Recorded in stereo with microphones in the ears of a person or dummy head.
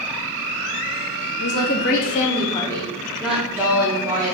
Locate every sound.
1.4 s a woman speaking: 80° left, 1.6 m; by 4.3 s 15° right (ahead or behind), 3.5 m